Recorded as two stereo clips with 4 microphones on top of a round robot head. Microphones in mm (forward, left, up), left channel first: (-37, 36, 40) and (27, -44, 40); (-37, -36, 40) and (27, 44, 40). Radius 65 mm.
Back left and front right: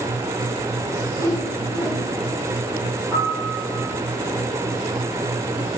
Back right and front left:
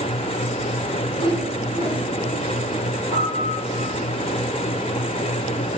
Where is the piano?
135° right, 6.5 m.